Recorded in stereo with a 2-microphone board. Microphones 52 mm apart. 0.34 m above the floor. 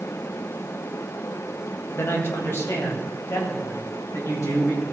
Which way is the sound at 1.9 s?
45° left (ahead or behind).